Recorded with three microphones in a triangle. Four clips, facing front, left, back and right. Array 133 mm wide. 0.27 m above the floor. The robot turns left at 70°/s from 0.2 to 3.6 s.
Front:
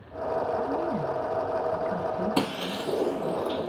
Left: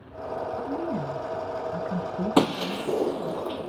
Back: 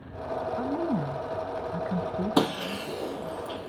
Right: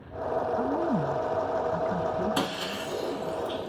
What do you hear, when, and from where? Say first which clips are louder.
0.6 s a woman speaking: right 3 dB, front 1 dB; 120° right, 1.0 m; by 3.4 s 45° left, 1.0 m
2.4 s breaking glass: left 7 dB, back 2 dB; 105° left, 1.4 m; by 3.7 s 20° left, 1.4 m